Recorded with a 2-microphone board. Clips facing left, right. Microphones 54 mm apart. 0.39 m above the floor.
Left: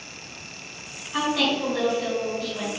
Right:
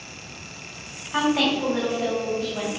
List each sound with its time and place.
1.1 s a woman speaking: 35° right (ahead or behind), 2.5 m